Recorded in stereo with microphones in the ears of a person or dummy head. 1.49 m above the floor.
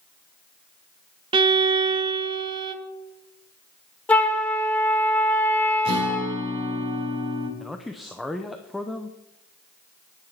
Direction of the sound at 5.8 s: 25° right (ahead or behind).